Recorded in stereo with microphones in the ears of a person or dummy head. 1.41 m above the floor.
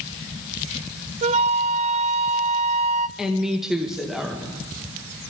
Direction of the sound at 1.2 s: 40° right (ahead or behind).